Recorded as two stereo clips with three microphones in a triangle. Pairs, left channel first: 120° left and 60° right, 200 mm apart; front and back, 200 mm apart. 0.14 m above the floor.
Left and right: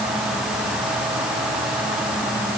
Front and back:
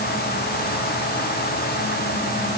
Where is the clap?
I don't hear a clap.